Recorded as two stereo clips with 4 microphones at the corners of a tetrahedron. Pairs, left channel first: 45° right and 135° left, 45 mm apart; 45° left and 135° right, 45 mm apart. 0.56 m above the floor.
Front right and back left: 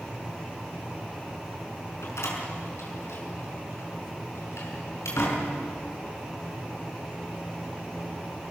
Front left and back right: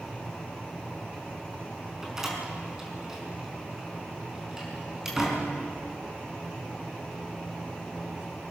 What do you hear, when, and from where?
2.0 s a door slam: 55° right, 5 m